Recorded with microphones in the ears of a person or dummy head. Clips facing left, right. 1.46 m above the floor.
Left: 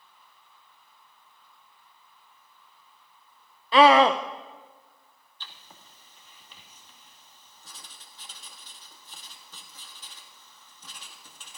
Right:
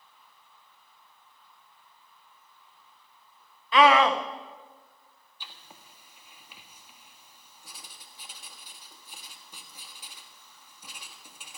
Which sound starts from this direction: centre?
Writing, at 5.4 s.